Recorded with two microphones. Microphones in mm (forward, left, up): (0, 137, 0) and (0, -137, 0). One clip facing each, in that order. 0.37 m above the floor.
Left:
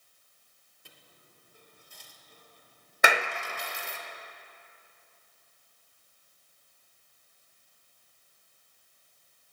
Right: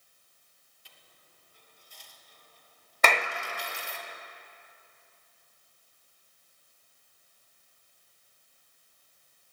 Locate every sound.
0.8 s a dropped coin: 60° left (ahead or behind), 1.4 m
3.0 s a clap: 10° left (ahead or behind), 0.6 m